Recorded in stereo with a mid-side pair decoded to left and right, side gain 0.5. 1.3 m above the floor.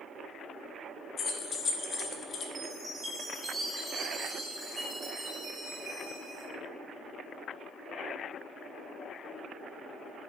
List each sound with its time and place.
1.2 s keys jangling: 50° left, 0.6 m
2.5 s a chime: 30° right, 1.4 m